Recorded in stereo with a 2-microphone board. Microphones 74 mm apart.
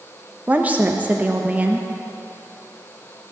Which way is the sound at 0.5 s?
20° right (ahead or behind).